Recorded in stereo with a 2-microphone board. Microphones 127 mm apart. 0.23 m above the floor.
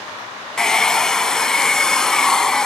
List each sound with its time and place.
0.6 s a hair dryer: 5° left (ahead or behind), 0.6 m